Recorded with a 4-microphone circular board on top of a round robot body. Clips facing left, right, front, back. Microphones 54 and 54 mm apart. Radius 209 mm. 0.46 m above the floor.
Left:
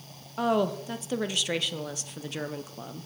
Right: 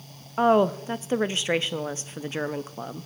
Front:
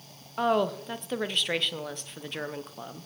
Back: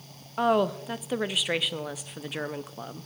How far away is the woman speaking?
About 0.8 m.